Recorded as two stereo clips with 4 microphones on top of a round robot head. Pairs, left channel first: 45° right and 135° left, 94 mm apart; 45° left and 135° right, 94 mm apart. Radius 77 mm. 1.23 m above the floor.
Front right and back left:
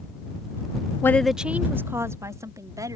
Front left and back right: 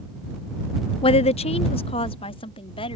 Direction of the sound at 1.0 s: 20° left.